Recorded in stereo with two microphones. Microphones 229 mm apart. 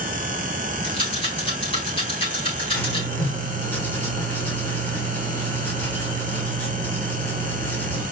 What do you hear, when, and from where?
0.8 s a rattle: 20° left (ahead or behind), 4 m
2.7 s writing: 10° left (ahead or behind), 2.5 m